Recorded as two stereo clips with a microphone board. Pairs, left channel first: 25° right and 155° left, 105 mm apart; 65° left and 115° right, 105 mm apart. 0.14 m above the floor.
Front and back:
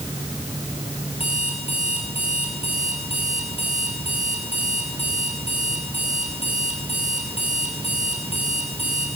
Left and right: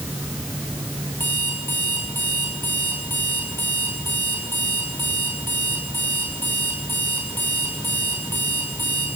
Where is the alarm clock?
5° right, 7.5 m.